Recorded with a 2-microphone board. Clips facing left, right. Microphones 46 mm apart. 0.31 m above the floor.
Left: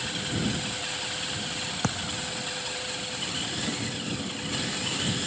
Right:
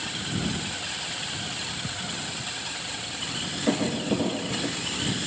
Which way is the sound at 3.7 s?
55° right (ahead or behind).